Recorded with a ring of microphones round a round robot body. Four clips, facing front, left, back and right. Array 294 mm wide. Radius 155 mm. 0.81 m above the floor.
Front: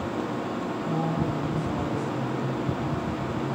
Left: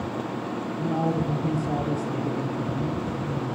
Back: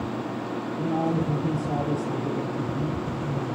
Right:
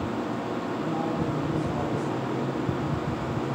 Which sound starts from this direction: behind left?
A man speaking, at 0.8 s.